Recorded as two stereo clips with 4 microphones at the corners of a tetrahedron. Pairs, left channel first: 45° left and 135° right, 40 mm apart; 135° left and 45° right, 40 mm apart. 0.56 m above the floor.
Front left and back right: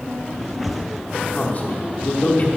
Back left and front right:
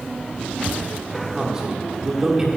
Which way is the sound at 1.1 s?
20° left.